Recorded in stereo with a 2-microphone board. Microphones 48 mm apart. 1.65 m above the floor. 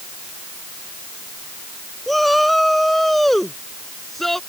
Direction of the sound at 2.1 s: Centre (ahead or behind).